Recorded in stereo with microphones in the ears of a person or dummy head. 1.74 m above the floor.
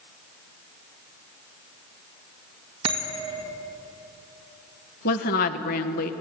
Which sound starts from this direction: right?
A bell, at 2.8 s.